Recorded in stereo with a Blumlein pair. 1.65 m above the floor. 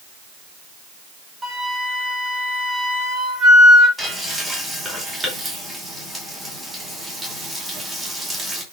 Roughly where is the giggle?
I don't hear a giggle.